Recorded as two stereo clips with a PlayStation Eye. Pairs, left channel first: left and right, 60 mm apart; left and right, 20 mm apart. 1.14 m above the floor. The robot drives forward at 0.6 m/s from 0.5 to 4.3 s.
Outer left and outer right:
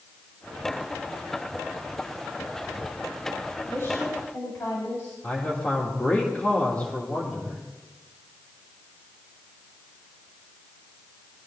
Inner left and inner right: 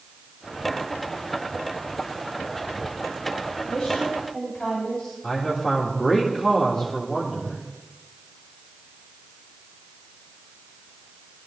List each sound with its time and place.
3.7 s a woman speaking: 50° left (ahead or behind), 5.5 m; by 5.1 s 45° left (ahead or behind), 6 m
5.2 s a man speaking: 20° left (ahead or behind), 2.5 m